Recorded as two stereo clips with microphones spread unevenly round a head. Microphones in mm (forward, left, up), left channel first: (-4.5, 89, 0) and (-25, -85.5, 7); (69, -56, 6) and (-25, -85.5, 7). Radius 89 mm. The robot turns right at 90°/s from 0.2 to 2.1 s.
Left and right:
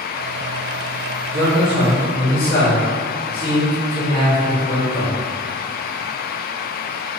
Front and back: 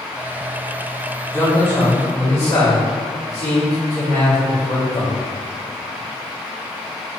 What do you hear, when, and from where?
1.3 s a man speaking: 45° right, 1.5 m; by 5.1 s 20° left, 1.5 m